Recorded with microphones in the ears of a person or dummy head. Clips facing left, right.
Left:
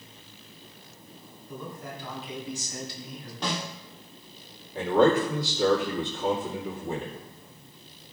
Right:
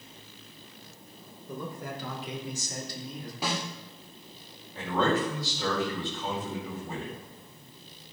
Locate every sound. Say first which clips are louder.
1.5 s a man speaking: right 2 dB; 75° right (ahead or behind), 3.5 m; by 3.3 s 20° right (ahead or behind), 2 m
3.4 s a snare drum: left 1 dB; 5° right (ahead or behind), 2 m
4.8 s a man speaking: left 6 dB; 40° left (ahead or behind), 2.5 m